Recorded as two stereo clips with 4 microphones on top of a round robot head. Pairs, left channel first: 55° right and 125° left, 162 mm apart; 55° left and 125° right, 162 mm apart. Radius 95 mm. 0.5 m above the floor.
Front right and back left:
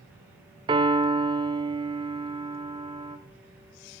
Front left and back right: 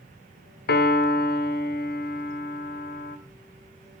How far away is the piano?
About 1.4 m.